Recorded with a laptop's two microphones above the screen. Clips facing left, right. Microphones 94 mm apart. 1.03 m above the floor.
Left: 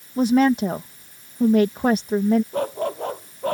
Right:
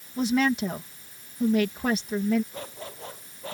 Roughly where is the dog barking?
Left.